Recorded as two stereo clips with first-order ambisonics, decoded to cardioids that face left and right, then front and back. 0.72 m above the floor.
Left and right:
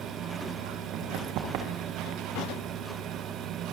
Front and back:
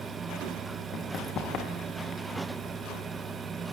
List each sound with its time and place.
0.9 s running footsteps: 50° right, 4 m; by 2.2 s 55° right, 3.5 m